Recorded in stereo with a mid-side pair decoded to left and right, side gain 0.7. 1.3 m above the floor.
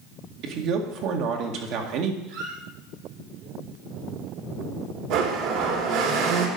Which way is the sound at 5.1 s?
65° right.